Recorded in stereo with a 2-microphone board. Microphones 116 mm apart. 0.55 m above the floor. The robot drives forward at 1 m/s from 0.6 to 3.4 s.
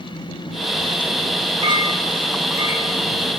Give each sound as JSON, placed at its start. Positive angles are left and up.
{"t": 1.6, "sound": "a clink", "side_deg": -40, "distance_m": 1.0}